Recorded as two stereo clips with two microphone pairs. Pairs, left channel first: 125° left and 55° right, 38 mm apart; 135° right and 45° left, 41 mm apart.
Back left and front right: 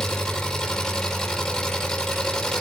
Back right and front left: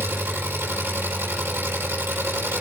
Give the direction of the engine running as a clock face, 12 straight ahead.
10 o'clock.